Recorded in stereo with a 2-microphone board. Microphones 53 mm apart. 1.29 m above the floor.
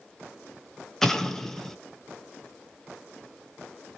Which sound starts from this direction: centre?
An explosion, at 1.0 s.